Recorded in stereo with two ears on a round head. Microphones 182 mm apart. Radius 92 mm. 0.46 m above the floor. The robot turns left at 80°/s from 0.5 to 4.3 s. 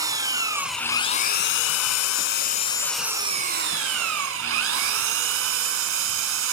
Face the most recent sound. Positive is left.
turn(degrees=-105)